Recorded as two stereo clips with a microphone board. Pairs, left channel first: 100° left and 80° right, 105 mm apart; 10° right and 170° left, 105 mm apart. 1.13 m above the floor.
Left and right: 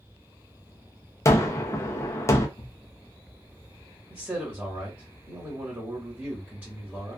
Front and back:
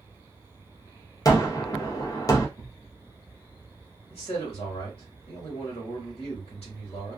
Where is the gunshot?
40° left, 0.6 m.